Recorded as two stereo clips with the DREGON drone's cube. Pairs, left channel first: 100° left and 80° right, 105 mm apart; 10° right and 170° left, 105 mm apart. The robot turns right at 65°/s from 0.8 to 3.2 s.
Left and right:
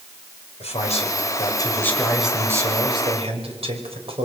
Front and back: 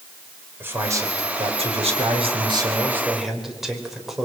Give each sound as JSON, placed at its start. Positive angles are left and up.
{"t": 0.6, "sound": "a man speaking", "azimuth_deg": 100, "distance_m": 4.5}